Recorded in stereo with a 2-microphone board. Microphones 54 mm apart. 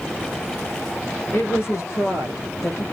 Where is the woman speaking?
45° left (ahead or behind), 1.5 m; by 2.8 s 70° left (ahead or behind), 3 m.